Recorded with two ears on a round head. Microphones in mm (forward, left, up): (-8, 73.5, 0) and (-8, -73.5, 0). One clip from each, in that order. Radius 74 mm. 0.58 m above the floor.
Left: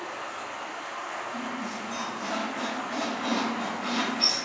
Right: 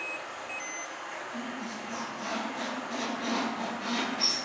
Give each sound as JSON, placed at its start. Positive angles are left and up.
{"t": 0.0, "sound": "running water", "side_deg": 0, "distance_m": 1.7}
{"t": 1.3, "sound": "a squeak", "side_deg": -65, "distance_m": 1.3}